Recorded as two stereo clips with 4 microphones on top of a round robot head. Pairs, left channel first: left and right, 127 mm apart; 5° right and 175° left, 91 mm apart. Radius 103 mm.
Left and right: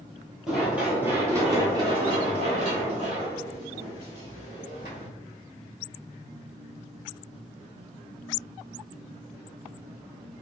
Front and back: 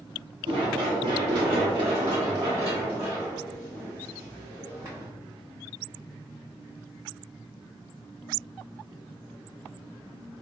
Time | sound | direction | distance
0.5 | running footsteps | straight behind | 1.3 m